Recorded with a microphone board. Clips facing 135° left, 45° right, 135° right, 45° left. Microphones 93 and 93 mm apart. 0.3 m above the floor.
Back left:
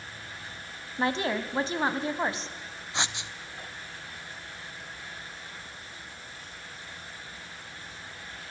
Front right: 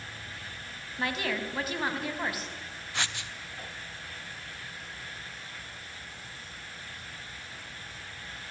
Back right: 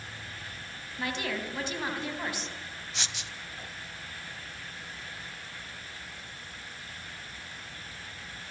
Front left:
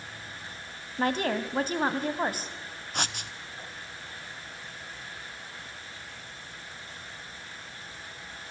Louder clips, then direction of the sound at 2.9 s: Back left 2 dB, front left 9 dB; 70° left.